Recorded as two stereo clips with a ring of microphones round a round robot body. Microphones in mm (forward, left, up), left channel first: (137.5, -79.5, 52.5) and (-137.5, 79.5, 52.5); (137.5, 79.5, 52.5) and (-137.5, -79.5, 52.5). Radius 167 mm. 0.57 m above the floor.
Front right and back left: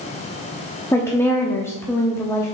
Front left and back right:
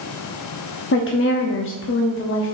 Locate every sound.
0.9 s a woman speaking: 50° left, 0.8 m